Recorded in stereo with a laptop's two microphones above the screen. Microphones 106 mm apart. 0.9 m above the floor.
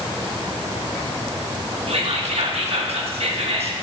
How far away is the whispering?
About 1.2 m.